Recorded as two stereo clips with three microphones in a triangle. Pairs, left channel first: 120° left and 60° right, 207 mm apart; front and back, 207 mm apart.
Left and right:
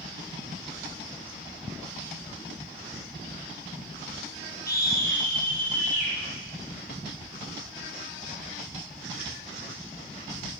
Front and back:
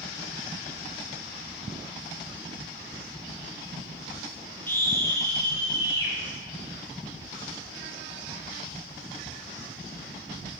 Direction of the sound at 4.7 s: 80° left.